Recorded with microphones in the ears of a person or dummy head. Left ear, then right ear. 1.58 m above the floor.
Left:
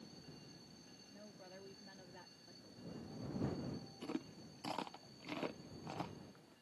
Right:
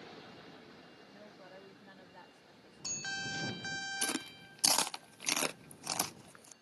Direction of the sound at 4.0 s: 55° right (ahead or behind).